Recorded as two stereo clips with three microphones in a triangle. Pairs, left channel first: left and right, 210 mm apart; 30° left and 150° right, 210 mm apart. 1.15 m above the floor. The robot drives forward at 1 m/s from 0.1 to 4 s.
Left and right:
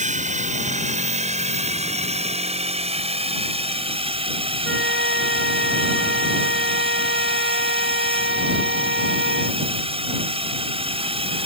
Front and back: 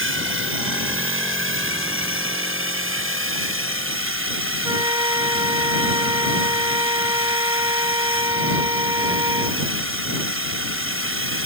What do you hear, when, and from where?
0.0 s a drone: 145° right; by 11.4 s 155° right
4.6 s a flute: 80° right